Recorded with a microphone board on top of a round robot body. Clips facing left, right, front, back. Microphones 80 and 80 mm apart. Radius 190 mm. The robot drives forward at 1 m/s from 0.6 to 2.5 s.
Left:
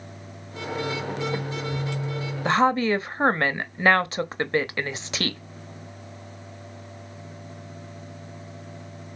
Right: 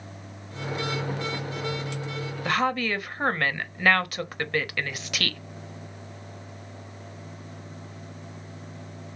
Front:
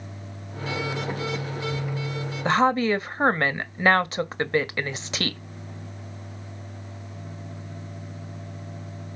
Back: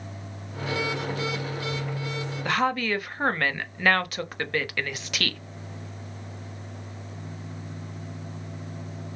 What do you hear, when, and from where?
2.5 s a woman speaking: 40° left, 1.5 m; by 5.4 s 45° left, 1.5 m